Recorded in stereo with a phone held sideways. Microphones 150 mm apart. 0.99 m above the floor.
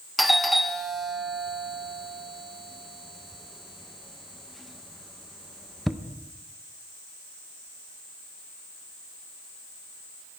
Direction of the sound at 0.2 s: Centre (ahead or behind).